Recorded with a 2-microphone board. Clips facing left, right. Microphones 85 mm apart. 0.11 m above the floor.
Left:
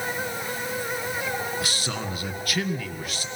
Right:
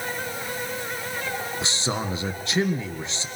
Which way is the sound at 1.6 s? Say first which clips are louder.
Right 2 dB; 25° right (ahead or behind).